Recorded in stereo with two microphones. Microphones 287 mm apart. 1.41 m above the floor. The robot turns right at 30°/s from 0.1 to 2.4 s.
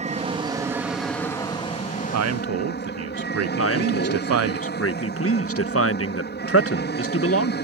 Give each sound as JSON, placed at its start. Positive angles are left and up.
{"t": 0.0, "sound": "an aircraft", "azimuth_deg": -25}
{"t": 2.1, "sound": "a man speaking", "side_deg": -65}
{"t": 3.6, "sound": "a man speaking", "side_deg": 50}